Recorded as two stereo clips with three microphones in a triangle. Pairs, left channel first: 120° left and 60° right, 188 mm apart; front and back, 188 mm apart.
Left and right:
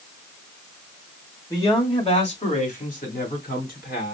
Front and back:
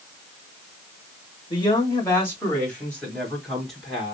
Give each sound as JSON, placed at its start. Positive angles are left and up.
{"t": 1.5, "sound": "a man speaking", "azimuth_deg": 50, "distance_m": 1.1}